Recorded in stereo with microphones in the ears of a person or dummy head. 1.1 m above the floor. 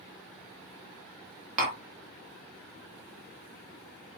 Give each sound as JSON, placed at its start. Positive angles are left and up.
{"t": 1.6, "sound": "tapping", "side_deg": -35, "distance_m": 0.9}